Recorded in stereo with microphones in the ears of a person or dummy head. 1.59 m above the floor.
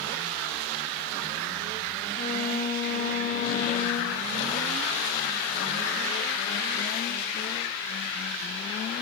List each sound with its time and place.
2.1 s a violin: 45° left (ahead or behind), 8 m